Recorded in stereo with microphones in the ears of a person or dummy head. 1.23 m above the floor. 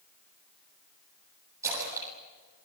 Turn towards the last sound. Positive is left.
turn(degrees=-10)  # may be behind; listen again after turning